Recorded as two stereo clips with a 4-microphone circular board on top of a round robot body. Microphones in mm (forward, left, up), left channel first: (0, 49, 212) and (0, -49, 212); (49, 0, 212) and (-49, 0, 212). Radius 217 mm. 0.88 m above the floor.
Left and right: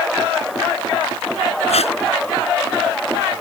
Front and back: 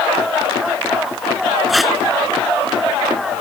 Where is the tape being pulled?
90° left.